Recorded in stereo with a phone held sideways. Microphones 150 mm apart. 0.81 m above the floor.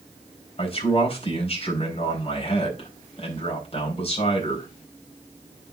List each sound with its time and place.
0.6 s a man speaking: 45° left (ahead or behind), 3.5 m